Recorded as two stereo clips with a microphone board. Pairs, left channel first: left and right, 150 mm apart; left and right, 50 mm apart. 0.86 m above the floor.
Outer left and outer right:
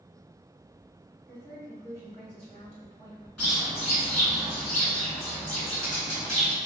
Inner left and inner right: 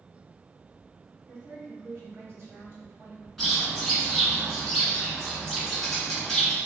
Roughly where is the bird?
Centre.